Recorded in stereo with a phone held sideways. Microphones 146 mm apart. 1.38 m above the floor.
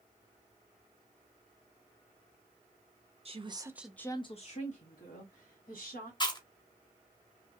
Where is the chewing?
30° left (ahead or behind), 0.8 m.